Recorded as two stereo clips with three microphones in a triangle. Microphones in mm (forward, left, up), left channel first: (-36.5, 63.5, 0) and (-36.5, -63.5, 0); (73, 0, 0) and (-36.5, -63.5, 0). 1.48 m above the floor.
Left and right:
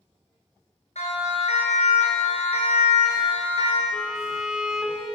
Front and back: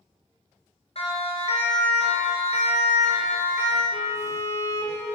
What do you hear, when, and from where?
0.9 s a siren: 65° left, 5.5 m; by 3.8 s 50° left, 4.5 m
3.9 s a violin: 5° right, 3 m